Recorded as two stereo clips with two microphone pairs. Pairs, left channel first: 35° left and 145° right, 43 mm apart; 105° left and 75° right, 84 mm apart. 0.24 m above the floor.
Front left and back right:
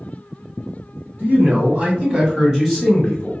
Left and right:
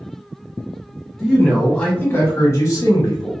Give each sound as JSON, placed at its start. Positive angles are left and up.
{"t": 1.2, "sound": "a man speaking", "azimuth_deg": -170, "distance_m": 1.5}